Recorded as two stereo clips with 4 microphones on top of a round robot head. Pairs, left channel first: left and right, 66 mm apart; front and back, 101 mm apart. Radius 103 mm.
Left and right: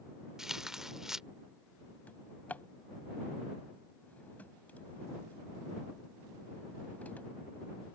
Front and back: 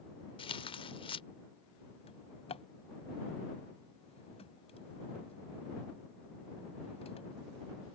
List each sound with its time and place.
0.4 s tearing paper: 5° right
2.1 s a drawer: 25° left